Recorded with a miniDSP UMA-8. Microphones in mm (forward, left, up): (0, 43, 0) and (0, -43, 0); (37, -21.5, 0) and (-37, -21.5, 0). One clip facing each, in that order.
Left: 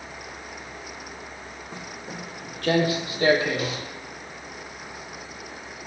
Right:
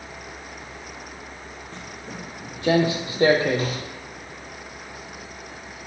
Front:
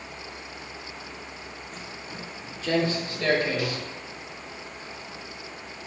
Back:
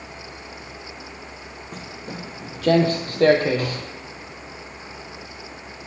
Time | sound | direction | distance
1.7 | footsteps | 165° left | 0.9 m